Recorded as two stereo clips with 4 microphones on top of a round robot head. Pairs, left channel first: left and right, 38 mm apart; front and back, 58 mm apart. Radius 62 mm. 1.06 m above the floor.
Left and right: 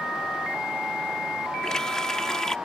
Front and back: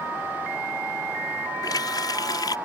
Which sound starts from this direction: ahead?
A running tap, at 1.6 s.